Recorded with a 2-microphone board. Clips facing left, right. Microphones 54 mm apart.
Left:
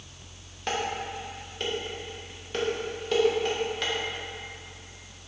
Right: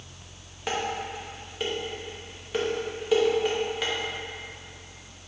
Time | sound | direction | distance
0.7 | dishes clattering | 10° right (ahead or behind) | 1.4 m